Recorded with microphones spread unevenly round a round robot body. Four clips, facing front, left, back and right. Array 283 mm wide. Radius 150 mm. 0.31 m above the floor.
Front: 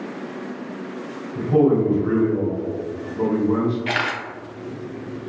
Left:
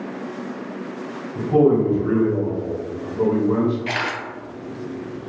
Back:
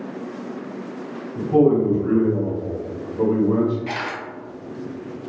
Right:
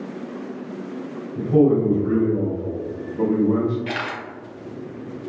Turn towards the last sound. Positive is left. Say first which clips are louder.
# left 2 dB, front 3 dB
turn(degrees=15)